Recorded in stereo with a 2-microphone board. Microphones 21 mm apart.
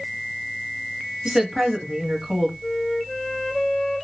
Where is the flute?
25° left (ahead or behind), 0.6 m.